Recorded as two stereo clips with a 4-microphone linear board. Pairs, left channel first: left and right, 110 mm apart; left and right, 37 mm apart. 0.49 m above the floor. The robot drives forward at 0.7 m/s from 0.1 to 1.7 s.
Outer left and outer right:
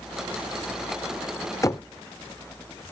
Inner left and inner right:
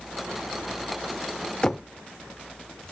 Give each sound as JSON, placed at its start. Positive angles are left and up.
{"t": 1.6, "sound": "knocking", "side_deg": 30, "distance_m": 0.6}